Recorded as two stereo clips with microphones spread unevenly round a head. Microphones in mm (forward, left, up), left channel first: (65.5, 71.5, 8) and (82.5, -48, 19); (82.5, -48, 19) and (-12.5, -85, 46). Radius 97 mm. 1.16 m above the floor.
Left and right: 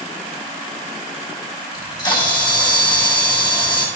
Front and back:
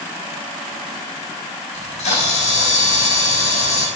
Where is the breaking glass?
No breaking glass in this recording.